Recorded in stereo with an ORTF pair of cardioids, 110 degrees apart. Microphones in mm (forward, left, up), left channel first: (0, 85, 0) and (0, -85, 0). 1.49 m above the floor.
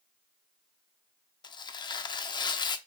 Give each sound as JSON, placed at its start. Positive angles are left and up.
{"t": 1.4, "sound": "tearing paper", "azimuth_deg": 30, "distance_m": 0.7}